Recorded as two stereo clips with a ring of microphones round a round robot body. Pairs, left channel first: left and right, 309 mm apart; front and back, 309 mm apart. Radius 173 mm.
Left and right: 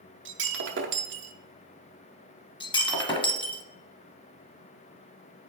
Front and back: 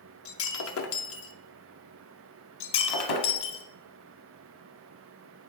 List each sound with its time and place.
0.2 s breaking glass: 40° right, 0.9 m
2.6 s breaking glass: 15° left, 1.3 m